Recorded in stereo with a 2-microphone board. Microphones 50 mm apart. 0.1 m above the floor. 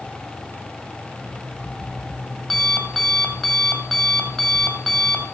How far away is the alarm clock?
About 2 m.